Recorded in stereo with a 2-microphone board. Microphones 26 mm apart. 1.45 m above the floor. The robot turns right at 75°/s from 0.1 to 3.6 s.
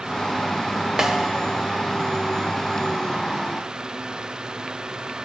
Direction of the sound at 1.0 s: 45° right.